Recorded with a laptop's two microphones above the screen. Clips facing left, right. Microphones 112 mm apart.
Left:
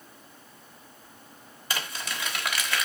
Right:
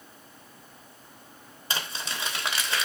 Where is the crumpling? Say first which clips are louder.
Even; 30° right (ahead or behind), 3 m.